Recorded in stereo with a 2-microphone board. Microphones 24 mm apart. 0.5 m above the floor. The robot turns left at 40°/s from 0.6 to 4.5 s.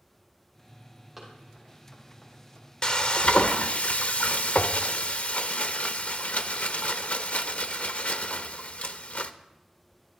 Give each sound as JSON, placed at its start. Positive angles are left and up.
{"t": 1.2, "sound": "running footsteps", "side_deg": -5, "distance_m": 7.5}
{"t": 2.8, "sound": "frying", "azimuth_deg": 145, "distance_m": 0.7}